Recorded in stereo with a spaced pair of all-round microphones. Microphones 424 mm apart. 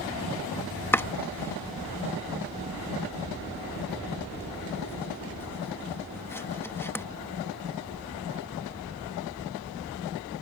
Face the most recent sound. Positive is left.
turn(degrees=5)  # may be behind; listen again after turning